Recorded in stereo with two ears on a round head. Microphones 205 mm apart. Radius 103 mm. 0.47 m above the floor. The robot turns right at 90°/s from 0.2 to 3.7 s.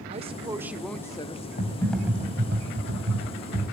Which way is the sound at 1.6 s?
145° left.